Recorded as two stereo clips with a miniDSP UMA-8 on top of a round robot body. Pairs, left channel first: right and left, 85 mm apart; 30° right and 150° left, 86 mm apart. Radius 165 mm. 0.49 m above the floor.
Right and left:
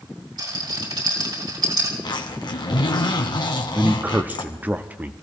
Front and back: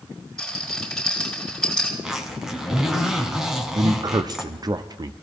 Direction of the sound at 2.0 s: 125° right.